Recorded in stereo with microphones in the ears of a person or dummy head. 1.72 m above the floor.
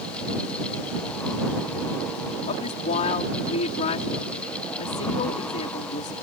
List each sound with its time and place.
2.5 s a woman speaking: 45° left (ahead or behind)